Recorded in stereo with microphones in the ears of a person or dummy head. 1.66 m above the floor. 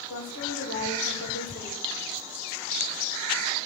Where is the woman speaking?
75° left (ahead or behind), 2 m.